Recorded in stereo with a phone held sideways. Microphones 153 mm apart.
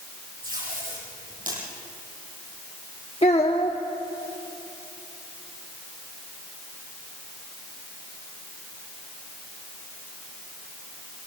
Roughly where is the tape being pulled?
Right.